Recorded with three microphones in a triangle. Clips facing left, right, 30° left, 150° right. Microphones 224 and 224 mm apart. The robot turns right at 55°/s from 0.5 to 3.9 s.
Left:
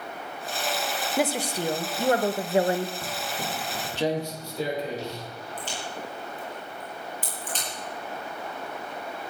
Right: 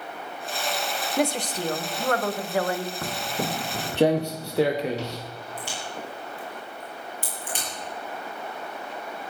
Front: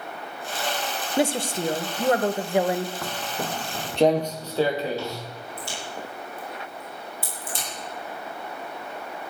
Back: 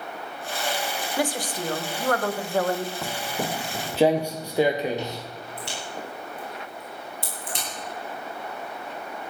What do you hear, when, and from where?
1.2 s a woman speaking: 5° left, 0.9 m; by 2.9 s 100° left, 0.9 m
3.0 s footsteps: 65° right, 0.7 m; by 5.2 s 80° right, 2.5 m
5.6 s a crack: 170° right, 8.5 m